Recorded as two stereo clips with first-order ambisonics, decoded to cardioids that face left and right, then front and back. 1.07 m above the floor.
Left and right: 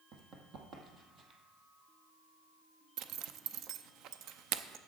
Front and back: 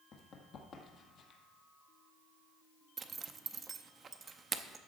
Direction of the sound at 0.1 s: 50° right.